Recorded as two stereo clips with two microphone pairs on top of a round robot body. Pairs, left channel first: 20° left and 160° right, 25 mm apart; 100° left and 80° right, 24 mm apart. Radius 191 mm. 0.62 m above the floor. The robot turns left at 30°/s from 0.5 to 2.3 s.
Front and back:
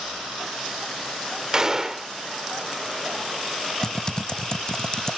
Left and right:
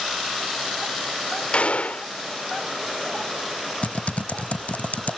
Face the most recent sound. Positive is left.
turn(degrees=90)